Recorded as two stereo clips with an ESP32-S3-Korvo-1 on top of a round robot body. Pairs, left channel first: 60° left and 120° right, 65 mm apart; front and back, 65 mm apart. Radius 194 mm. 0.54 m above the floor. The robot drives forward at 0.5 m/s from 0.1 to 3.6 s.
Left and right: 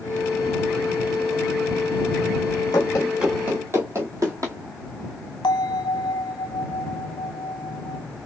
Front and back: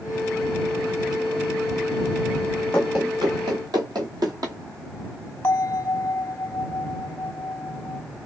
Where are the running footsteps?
65° left, 0.6 m; by 4.6 s 155° right, 1.2 m.